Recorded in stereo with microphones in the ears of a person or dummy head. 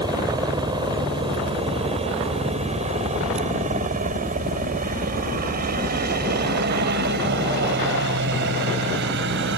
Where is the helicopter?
20° right (ahead or behind); by 9.6 s 65° right (ahead or behind).